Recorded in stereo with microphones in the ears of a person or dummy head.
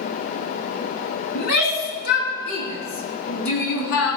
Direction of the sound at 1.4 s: 65° left (ahead or behind).